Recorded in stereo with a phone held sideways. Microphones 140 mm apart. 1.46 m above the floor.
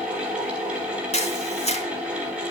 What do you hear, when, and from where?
0.0 s a fan: 10° right (ahead or behind), 4.5 m
1.1 s a camera shutter: 50° left (ahead or behind), 2.5 m